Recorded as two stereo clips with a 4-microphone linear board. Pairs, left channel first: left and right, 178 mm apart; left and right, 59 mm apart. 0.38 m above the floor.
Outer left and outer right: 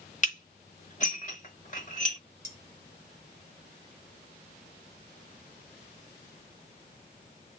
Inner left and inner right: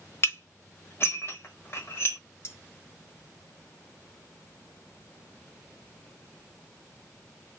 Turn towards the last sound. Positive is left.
turn(degrees=45)  # may be behind; listen again after turning